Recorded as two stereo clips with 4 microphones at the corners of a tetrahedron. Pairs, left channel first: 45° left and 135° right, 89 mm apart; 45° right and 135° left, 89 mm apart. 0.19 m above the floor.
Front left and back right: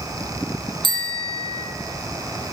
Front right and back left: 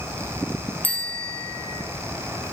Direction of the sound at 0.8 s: 115° right.